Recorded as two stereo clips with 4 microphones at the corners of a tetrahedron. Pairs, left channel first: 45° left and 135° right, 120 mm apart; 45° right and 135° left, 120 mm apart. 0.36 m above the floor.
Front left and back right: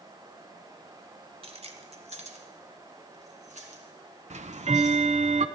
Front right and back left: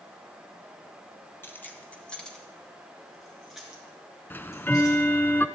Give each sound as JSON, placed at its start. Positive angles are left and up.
{"t": 1.4, "sound": "keys jangling", "azimuth_deg": -115, "distance_m": 1.5}
{"t": 4.3, "sound": "ticking", "azimuth_deg": -120, "distance_m": 0.7}